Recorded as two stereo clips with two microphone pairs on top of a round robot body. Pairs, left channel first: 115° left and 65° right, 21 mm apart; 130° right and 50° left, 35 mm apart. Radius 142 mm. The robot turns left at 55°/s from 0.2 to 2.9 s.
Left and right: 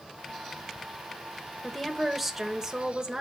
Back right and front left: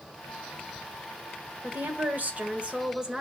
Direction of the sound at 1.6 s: 50° left.